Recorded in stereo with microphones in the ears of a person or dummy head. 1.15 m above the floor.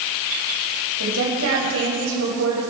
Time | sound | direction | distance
1.0 | a woman speaking | 75° right (ahead or behind) | 6 m